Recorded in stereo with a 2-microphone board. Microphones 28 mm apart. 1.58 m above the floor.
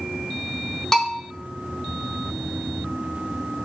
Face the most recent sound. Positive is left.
turn(degrees=15)  # may be behind; listen again after turning